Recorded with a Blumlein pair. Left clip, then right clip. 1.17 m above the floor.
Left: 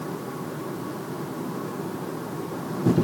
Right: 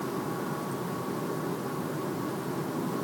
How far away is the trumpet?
I don't hear a trumpet.